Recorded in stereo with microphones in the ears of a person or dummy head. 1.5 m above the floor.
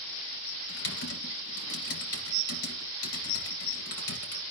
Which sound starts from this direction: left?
Typing on a keyboard, at 0.7 s.